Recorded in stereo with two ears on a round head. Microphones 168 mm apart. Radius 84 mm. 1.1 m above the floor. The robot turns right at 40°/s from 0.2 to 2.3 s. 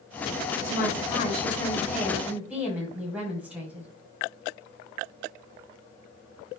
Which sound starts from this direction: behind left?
A woman speaking, at 0.6 s.